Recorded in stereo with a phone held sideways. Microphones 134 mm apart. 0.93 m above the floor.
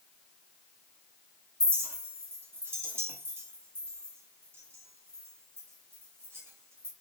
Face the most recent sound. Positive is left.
turn(degrees=-20)  # may be behind; listen again after turning